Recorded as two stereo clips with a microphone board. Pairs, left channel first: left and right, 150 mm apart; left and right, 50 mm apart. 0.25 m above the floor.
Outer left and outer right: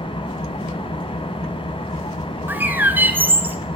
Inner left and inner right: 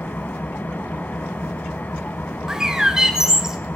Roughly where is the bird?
Centre.